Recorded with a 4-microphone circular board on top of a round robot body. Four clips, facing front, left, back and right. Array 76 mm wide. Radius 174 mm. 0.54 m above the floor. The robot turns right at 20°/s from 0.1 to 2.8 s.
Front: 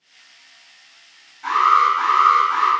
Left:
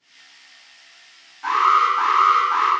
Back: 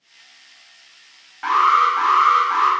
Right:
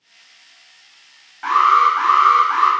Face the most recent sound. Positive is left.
turn(degrees=-120)